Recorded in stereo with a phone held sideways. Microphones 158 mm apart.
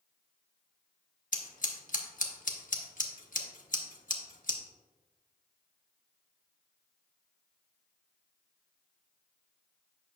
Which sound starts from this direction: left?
Scissors, at 1.3 s.